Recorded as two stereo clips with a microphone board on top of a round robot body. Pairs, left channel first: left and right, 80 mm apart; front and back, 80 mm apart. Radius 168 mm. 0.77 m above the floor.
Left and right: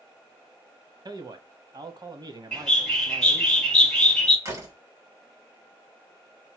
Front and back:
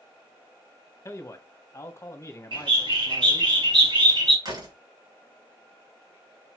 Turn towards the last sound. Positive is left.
turn(degrees=-145)